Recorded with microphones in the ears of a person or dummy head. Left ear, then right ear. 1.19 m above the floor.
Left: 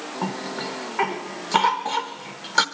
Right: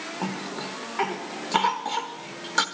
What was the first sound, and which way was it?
A cough, 15° left (ahead or behind).